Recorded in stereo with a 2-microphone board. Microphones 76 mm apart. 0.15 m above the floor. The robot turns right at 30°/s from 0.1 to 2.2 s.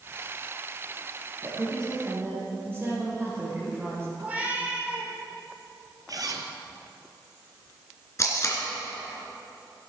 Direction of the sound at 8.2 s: 45° left (ahead or behind).